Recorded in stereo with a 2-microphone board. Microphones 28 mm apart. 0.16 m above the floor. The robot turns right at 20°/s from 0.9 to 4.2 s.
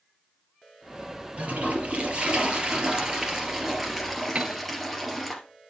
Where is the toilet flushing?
60° right, 2.5 m; by 5.3 s straight ahead, 2.5 m.